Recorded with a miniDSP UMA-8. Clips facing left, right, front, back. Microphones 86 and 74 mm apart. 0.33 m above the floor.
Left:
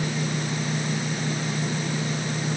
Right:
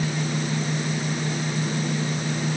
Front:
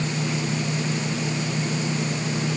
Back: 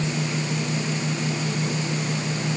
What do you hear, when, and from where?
Only background noise.